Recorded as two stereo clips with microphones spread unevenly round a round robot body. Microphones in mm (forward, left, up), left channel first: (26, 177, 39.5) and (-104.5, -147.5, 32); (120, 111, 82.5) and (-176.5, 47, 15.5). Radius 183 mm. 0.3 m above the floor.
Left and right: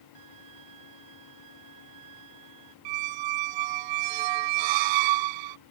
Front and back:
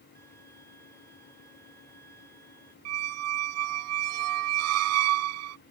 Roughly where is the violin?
Right.